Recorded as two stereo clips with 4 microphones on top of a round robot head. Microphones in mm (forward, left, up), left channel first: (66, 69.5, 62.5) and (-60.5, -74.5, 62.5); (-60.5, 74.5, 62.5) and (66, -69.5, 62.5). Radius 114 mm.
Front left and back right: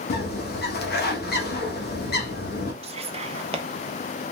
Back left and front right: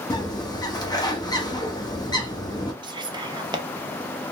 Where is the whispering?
100° right, 0.7 m.